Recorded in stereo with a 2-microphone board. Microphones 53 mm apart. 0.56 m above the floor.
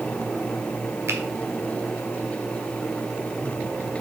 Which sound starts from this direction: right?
A finger snap, at 1.1 s.